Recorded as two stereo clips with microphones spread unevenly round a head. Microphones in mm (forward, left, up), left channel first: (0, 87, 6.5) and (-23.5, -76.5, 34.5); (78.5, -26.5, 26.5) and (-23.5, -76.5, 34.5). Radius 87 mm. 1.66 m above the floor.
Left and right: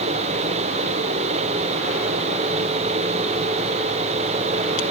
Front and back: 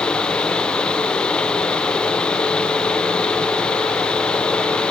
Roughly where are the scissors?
I don't hear scissors.